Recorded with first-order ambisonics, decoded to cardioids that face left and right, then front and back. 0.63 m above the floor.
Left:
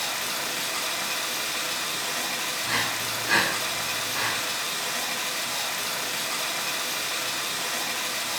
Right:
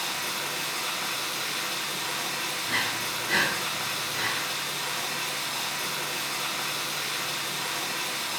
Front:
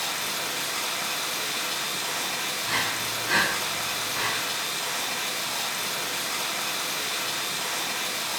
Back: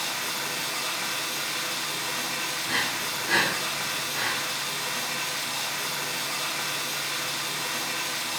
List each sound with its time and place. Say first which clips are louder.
0.0 s running water: left 1 dB, front 1 dB; 75° left, 1.6 m
2.6 s breathing: left 1 dB, front 1 dB; 80° left, 2 m